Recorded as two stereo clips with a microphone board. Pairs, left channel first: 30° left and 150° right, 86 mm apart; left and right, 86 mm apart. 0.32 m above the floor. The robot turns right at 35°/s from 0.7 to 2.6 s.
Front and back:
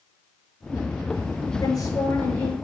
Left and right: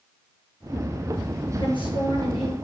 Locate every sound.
1.6 s a woman speaking: 70° left, 7 m; by 2.5 s 100° left, 7 m